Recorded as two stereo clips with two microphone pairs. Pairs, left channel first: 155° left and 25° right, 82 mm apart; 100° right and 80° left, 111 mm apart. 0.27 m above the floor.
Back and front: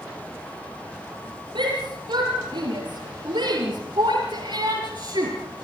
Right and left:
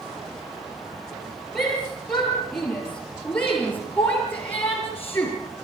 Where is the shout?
20° right, 5.5 m; by 5.3 s 35° right, 3.5 m.